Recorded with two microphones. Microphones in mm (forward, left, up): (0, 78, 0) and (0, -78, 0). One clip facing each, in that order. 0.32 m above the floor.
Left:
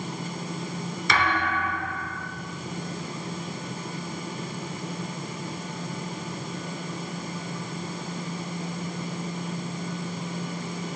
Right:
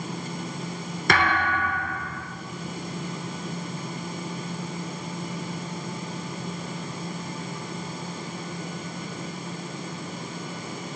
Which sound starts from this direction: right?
A thud, at 1.1 s.